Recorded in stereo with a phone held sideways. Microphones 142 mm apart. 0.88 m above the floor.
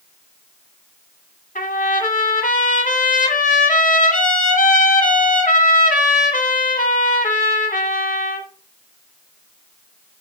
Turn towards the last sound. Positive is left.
turn(degrees=65)  # may be behind; listen again after turning